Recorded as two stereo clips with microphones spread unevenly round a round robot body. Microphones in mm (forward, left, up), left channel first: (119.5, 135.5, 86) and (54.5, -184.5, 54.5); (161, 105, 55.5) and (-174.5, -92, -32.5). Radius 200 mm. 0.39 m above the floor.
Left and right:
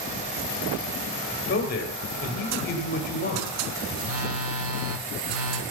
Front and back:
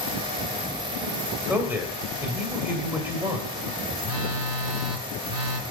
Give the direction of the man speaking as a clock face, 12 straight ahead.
7 o'clock.